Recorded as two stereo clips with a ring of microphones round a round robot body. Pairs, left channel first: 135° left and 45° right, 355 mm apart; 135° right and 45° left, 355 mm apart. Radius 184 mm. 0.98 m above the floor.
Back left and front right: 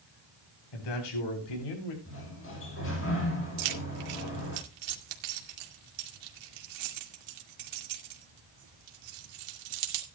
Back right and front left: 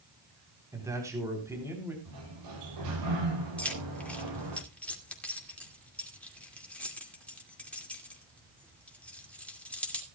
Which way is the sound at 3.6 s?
50° right.